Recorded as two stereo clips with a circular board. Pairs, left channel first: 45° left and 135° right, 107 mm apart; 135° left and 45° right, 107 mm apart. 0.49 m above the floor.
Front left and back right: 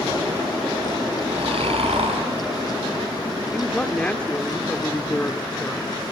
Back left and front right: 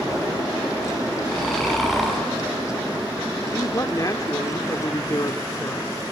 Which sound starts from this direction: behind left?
A man speaking, at 3.5 s.